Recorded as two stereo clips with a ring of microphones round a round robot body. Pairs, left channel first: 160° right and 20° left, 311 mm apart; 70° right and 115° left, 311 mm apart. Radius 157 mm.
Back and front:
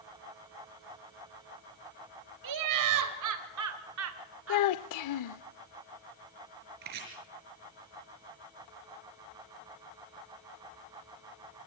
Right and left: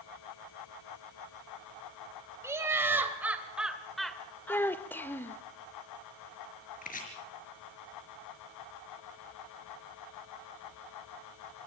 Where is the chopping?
5° right, 5 m.